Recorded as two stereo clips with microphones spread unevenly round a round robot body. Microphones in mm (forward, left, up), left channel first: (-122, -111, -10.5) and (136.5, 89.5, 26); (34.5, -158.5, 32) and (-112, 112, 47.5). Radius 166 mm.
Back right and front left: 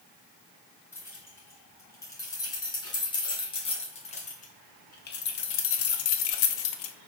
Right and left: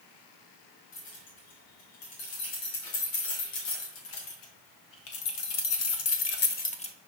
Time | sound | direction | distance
0.9 | keys jangling | 60° right | 4.5 m